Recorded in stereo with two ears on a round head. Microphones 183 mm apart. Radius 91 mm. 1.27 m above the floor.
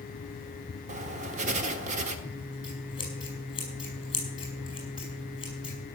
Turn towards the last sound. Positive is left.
turn(degrees=25)  # may be behind; listen again after turning